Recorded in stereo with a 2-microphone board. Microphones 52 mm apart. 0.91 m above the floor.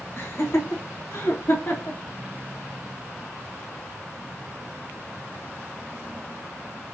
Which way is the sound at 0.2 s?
55° left (ahead or behind).